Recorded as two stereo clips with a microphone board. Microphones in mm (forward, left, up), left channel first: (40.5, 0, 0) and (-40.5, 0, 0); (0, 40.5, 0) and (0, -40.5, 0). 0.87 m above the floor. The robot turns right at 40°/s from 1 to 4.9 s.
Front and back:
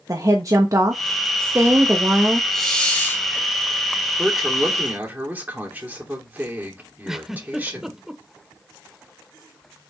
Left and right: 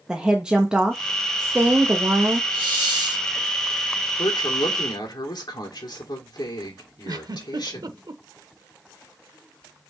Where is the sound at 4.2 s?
85° left, 2.5 m; by 8.0 s 110° left, 2.5 m.